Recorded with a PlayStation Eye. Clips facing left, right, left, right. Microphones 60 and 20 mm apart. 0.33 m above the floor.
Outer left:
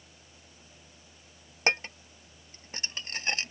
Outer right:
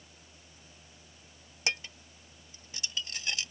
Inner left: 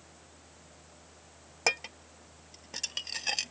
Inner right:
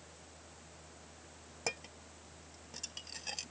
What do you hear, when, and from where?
1.7 s dishes clattering: 45° left (ahead or behind)